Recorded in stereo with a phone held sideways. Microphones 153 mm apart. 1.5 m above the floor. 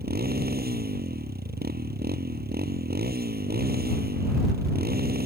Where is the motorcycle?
85° right.